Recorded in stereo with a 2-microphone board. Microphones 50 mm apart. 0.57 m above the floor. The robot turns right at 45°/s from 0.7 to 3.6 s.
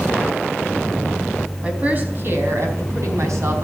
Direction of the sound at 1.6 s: 160° right.